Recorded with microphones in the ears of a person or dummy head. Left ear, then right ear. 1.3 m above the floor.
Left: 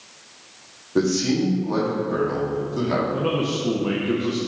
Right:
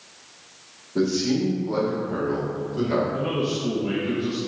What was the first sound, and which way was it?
A man speaking, 50° left (ahead or behind).